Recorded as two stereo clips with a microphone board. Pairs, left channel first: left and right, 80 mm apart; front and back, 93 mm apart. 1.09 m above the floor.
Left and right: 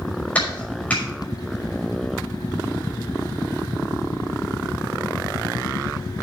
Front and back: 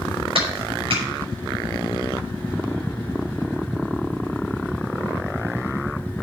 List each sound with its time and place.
0.3 s a clap: 165° left, 5.5 m